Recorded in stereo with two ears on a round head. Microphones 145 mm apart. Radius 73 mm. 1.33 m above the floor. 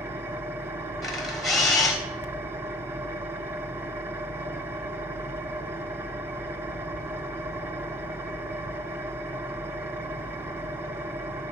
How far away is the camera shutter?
About 3 m.